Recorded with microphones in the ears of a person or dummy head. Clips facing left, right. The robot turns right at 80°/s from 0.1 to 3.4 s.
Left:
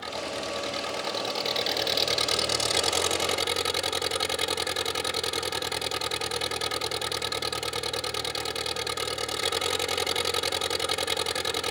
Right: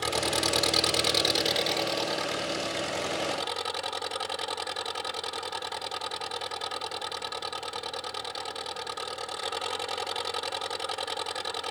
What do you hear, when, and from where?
0.0 s an engine running: 120° right; by 11.7 s 145° left